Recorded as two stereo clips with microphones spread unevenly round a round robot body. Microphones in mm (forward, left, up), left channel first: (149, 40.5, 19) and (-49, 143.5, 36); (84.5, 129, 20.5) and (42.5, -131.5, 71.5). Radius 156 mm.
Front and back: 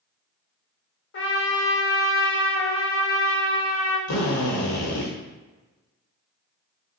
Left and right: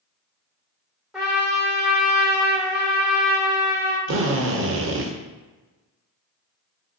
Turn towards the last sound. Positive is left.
turn(degrees=-55)